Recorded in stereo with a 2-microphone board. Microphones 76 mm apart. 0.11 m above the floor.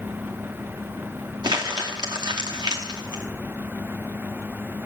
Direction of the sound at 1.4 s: 65° right (ahead or behind).